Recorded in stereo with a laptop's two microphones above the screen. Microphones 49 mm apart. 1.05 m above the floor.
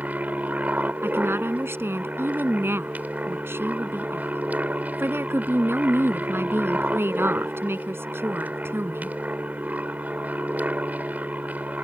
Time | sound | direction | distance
0.0 | an aircraft | 35° right (ahead or behind) | ?
1.0 | a woman speaking | 55° right (ahead or behind) | ?